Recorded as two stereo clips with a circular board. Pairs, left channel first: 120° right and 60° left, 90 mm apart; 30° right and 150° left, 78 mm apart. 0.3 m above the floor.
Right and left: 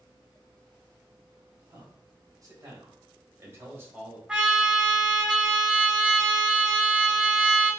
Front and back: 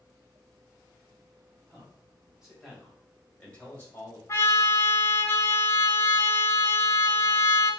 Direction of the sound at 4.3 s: 15° right.